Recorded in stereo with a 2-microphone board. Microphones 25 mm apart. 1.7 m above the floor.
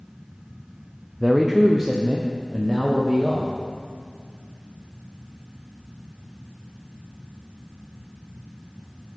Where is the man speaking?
Centre (ahead or behind), 0.7 m; by 3.5 s 25° right (ahead or behind), 1.8 m.